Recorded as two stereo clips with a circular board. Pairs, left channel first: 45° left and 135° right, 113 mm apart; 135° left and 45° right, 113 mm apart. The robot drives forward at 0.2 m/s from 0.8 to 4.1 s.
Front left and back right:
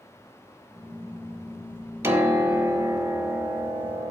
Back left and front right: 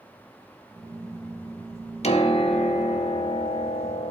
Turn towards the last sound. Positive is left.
turn(degrees=160)